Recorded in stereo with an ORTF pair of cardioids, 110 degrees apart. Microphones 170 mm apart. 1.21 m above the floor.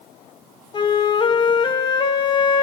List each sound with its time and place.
0.7 s a flute: 30° left, 0.8 m